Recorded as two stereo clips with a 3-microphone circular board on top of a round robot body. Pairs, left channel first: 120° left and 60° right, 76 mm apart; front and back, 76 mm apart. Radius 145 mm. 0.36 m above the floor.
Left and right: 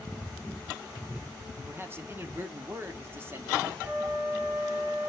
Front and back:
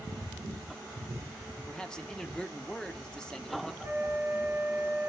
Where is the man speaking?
70° right, 1.6 m.